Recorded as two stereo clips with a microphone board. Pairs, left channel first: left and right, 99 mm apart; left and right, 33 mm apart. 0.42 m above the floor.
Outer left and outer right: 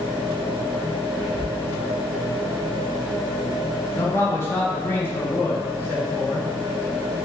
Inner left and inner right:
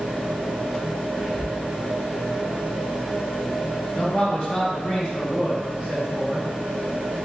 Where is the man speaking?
25° left (ahead or behind), 0.9 m.